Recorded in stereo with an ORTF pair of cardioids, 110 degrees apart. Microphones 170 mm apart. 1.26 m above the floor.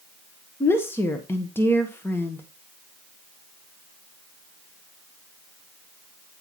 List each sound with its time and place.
0.6 s a woman speaking: 15° left, 1.3 m